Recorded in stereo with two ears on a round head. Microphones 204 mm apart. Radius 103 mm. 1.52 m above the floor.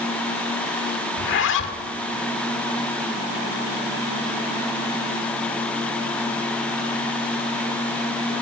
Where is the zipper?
55° left (ahead or behind), 1.7 m.